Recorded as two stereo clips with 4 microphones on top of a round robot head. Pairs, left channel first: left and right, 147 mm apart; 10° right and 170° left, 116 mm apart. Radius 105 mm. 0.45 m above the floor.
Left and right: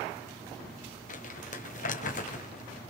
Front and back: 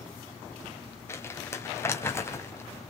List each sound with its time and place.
1.1 s crumpling: 55° left, 3.5 m